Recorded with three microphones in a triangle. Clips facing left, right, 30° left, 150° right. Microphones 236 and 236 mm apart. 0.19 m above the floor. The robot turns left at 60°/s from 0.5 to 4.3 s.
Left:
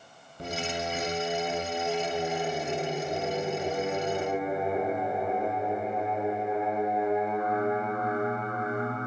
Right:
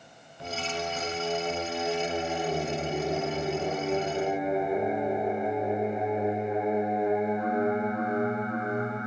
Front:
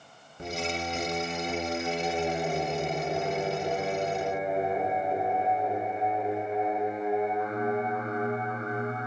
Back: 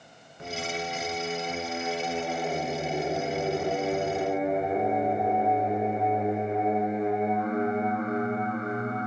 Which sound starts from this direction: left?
Singing, at 0.4 s.